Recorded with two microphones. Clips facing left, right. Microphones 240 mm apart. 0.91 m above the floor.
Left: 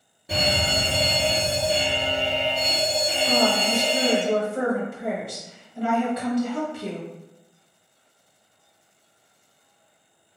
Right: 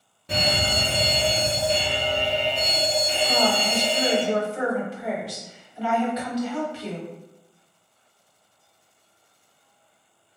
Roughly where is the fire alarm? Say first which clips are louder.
Left 1 dB; centre.